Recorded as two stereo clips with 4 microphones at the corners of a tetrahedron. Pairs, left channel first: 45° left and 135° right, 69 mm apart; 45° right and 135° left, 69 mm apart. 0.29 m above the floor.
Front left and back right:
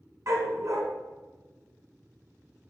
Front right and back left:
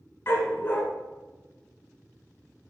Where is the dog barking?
100° right, 1.3 m.